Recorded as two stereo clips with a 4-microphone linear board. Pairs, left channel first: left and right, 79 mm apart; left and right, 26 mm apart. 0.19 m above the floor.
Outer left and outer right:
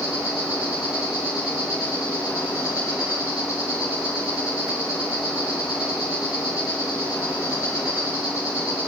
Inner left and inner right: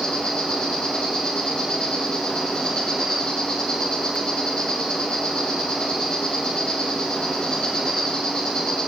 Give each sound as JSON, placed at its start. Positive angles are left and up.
{"t": 0.0, "sound": "an insect", "side_deg": 45, "distance_m": 3.0}